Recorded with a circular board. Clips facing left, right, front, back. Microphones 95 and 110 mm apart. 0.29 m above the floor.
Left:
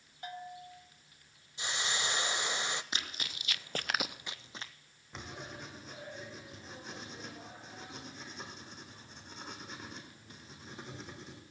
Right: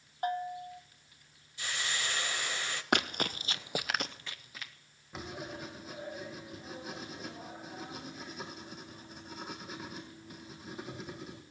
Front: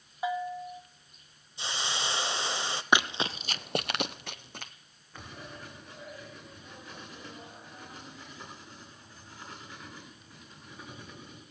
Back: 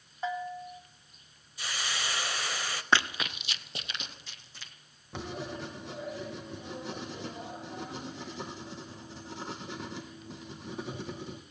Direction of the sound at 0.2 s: 75° right.